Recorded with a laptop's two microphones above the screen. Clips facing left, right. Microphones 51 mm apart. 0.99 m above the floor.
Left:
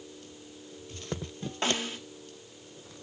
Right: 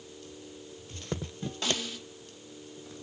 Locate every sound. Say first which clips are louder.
1.6 s a snare drum: left 3 dB; 35° left (ahead or behind), 2 m